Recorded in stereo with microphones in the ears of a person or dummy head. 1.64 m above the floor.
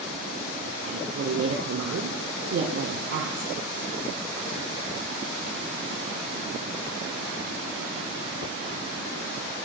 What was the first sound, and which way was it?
A woman speaking, 65° right (ahead or behind).